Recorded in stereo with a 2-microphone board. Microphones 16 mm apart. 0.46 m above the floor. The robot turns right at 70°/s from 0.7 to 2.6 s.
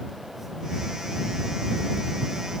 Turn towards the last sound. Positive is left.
No sound to turn to.